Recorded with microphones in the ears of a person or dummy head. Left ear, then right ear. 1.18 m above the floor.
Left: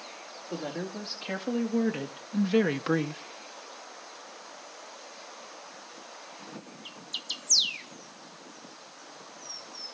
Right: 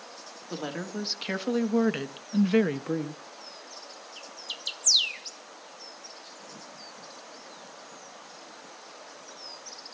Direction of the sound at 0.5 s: 55° right (ahead or behind).